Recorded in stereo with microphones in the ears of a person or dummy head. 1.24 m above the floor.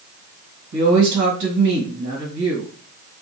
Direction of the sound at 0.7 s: 65° right (ahead or behind).